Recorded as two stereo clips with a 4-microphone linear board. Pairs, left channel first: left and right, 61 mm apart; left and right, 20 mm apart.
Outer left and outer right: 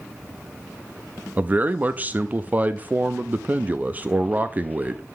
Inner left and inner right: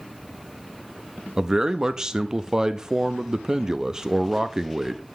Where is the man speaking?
25° right (ahead or behind), 0.5 m.